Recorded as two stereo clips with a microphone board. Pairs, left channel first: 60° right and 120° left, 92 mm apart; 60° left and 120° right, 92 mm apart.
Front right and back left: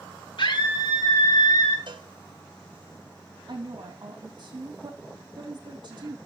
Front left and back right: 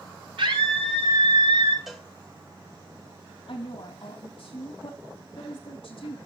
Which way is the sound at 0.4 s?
95° right.